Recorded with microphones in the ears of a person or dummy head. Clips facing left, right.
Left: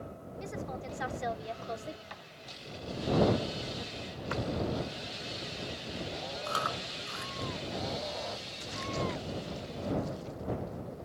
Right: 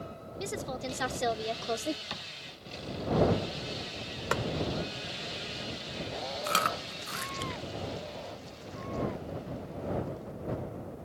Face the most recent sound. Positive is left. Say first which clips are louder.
# right 3 dB
turn(degrees=-40)  # may be behind; listen again after turning